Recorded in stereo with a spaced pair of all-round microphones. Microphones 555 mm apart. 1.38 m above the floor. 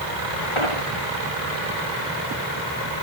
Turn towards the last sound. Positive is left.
turn(degrees=60)  # may be behind; listen again after turning